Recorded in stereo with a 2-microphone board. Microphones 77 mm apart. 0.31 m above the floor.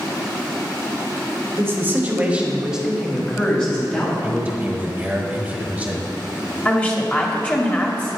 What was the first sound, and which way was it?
A man speaking, 35° right (ahead or behind).